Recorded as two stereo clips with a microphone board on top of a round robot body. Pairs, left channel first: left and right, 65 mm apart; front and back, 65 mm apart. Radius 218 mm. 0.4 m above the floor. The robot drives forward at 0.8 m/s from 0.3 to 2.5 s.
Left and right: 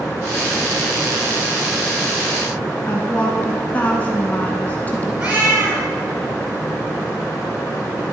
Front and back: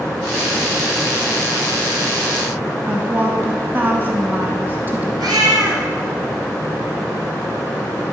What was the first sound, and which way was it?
A woman speaking, 140° left.